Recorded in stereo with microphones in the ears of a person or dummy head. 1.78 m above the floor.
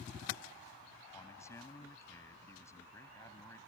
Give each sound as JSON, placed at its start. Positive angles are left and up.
{"t": 1.1, "sound": "a man speaking", "side_deg": 15}